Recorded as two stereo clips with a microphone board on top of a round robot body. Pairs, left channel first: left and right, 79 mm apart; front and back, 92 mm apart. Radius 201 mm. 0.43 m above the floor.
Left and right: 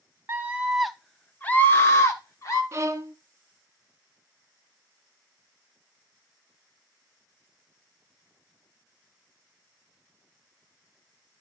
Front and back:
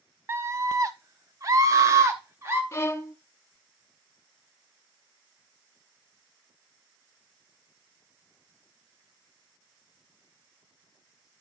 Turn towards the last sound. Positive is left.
turn(degrees=-50)